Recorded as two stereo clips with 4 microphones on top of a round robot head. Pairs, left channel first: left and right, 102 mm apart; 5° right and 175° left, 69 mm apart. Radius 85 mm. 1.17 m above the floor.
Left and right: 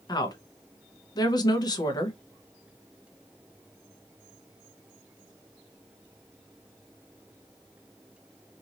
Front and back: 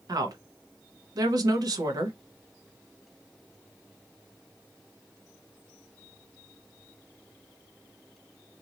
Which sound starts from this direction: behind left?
A woman speaking, at 0.1 s.